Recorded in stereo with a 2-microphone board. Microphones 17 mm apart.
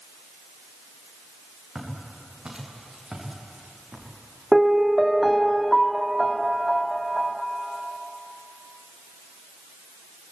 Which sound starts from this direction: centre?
A piano, at 4.5 s.